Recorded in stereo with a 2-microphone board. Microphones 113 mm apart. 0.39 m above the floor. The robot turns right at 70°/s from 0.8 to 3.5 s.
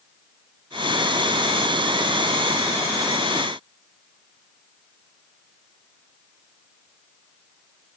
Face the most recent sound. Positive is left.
No sound to turn to.